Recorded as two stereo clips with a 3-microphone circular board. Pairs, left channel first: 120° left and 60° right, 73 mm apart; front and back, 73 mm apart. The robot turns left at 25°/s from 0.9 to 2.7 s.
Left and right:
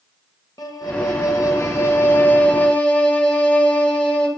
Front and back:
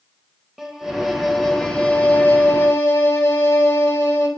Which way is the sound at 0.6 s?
90° left.